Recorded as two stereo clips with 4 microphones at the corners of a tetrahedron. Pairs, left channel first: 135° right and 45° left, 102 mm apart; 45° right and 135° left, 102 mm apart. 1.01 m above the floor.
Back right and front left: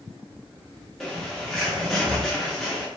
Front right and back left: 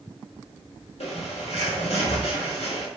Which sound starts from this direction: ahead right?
A bird, at 1.0 s.